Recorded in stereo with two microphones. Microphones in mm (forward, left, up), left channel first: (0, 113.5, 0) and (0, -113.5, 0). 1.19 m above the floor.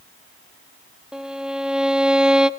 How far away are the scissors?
I don't hear scissors.